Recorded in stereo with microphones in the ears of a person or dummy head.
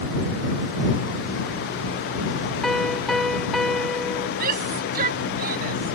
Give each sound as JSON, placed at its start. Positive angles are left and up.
{"t": 2.6, "sound": "a piano", "side_deg": 0}
{"t": 4.4, "sound": "a shout", "side_deg": -55}